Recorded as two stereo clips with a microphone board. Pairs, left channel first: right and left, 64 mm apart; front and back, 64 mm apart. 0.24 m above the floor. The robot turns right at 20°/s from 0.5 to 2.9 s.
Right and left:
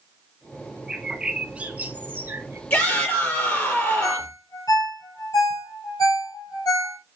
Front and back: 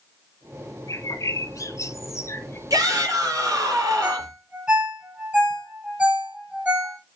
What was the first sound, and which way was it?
A bird, 10° left.